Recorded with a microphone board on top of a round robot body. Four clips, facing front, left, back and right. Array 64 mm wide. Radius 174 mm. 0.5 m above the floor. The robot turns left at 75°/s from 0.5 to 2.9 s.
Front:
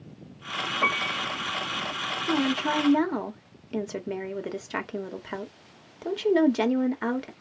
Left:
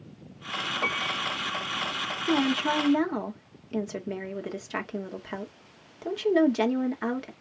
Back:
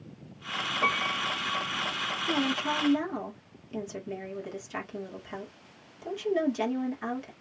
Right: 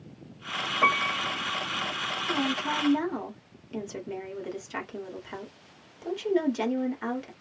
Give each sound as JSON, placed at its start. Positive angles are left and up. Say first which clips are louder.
{"t": 0.8, "sound": "a piano", "louder": "right 7 dB, front 1 dB", "azimuth_deg": -70, "distance_m": 1.4}
{"t": 2.3, "sound": "a woman speaking", "louder": "left 5 dB, front 4 dB", "azimuth_deg": 75, "distance_m": 1.8}